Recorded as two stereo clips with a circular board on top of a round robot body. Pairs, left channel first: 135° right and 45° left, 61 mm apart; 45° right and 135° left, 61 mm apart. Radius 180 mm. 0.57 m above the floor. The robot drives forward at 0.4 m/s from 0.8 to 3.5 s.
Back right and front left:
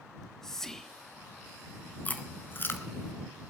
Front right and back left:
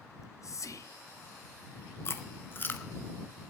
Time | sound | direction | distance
0.1 | whispering | 55° right | 1.7 m
2.0 | chewing | 80° right | 1.5 m